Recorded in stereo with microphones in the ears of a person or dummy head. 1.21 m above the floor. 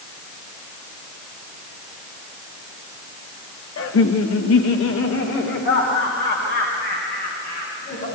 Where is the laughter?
80° left, 1.3 m; by 8.1 s 40° left (ahead or behind), 6.5 m.